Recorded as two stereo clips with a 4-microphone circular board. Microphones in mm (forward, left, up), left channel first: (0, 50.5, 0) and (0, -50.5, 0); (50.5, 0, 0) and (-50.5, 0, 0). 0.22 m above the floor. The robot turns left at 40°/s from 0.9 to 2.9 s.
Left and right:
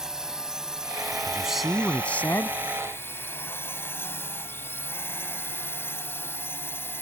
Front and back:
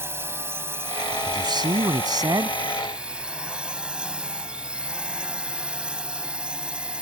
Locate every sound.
0.0 s a drone: 165° right; by 7.0 s 115° left
1.3 s a man speaking: 165° right; by 2.6 s 145° left